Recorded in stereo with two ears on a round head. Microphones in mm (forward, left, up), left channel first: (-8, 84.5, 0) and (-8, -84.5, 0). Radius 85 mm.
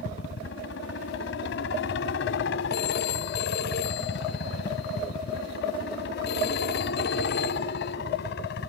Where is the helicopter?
70° left (ahead or behind); by 8.7 s 60° left (ahead or behind).